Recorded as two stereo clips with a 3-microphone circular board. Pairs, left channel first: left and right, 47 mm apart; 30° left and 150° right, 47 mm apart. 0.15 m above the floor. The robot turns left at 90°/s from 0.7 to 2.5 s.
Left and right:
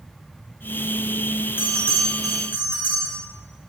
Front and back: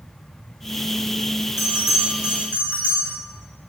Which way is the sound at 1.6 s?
50° left.